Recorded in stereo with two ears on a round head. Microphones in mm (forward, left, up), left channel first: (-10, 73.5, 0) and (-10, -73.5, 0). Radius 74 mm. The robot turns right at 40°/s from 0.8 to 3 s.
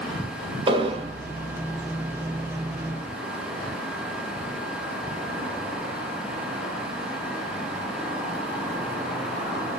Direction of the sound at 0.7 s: 35° right (ahead or behind).